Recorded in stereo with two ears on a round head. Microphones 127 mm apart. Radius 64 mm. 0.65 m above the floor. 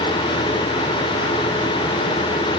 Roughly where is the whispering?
No whispering in this recording.